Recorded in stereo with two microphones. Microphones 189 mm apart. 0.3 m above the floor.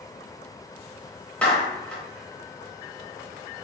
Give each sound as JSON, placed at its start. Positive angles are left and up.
{"t": 1.4, "sound": "a clap", "side_deg": 5, "distance_m": 0.9}